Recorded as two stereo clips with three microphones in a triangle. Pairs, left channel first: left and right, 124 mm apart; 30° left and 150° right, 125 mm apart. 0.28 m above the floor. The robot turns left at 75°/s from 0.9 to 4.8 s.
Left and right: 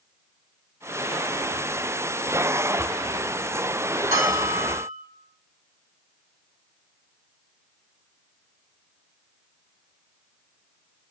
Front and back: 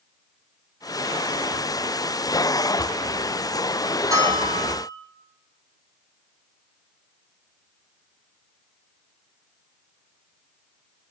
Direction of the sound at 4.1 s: 85° right.